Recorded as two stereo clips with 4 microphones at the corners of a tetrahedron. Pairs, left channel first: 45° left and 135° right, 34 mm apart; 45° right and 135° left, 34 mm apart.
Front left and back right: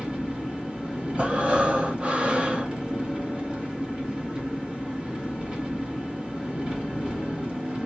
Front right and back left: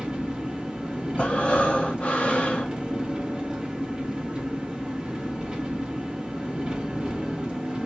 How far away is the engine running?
About 1.3 m.